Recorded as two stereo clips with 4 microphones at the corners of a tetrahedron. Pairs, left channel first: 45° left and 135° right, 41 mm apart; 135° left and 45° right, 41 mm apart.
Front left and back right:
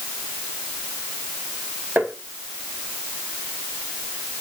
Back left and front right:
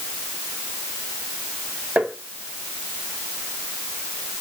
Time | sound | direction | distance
2.0 | tapping | 95° right | 2 m